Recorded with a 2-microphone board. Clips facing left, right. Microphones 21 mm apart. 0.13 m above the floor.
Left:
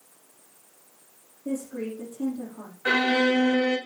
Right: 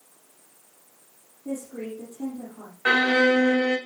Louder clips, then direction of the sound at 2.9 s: Right 3 dB; 50° right (ahead or behind).